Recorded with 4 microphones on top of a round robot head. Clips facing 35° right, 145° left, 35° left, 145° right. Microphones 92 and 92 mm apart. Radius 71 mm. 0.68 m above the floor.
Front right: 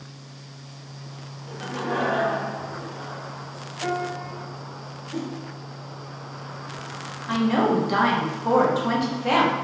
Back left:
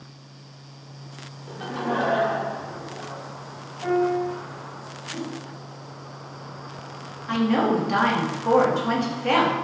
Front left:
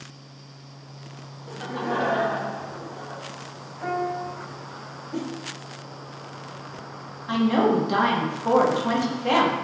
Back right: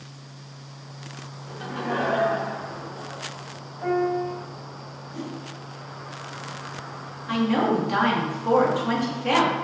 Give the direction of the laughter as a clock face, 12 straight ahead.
9 o'clock.